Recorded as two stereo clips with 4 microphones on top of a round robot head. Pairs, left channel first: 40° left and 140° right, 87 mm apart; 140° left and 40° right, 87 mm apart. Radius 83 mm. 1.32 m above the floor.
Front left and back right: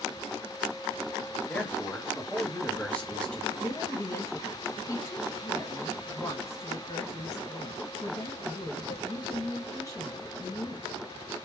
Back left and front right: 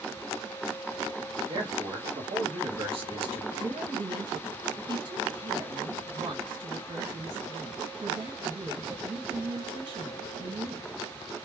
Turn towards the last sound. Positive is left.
turn(degrees=-10)